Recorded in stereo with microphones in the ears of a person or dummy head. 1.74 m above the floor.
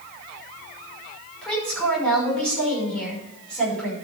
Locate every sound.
1.4 s a woman speaking: 10° left (ahead or behind), 6 m